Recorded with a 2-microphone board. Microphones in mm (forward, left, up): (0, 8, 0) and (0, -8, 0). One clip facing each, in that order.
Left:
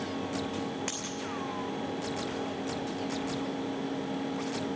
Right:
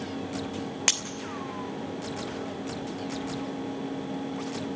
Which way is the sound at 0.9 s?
75° right (ahead or behind).